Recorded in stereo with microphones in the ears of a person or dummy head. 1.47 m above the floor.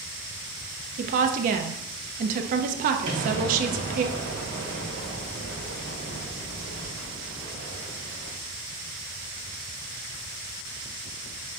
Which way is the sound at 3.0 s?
70° right (ahead or behind).